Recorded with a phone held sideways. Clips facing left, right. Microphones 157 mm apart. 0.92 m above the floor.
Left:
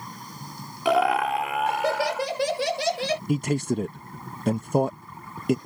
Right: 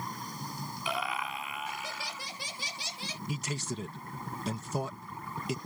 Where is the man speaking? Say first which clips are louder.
Left 11 dB; 55° left (ahead or behind).